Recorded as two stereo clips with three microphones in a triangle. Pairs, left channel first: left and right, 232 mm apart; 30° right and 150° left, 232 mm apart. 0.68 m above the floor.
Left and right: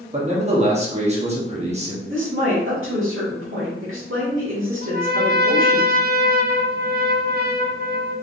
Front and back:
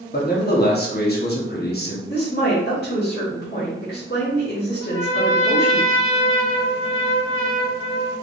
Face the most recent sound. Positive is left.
turn(degrees=-45)